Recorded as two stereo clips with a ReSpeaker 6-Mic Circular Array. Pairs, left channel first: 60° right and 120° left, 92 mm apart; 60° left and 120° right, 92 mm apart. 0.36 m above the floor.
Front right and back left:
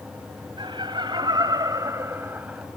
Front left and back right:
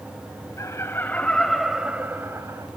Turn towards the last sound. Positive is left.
turn(degrees=-165)